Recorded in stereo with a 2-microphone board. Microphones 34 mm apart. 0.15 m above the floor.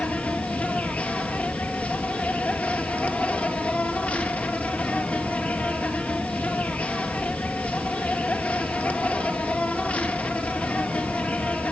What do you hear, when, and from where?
0.0 s an insect: 50° left (ahead or behind), 2.5 m